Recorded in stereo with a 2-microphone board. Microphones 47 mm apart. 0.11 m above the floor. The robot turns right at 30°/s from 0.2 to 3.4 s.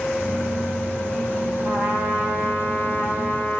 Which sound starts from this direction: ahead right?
A trumpet, at 1.6 s.